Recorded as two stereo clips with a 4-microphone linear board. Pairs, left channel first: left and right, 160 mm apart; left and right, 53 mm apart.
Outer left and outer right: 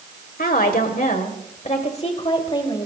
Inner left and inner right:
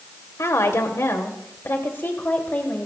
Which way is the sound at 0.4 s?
65° left (ahead or behind).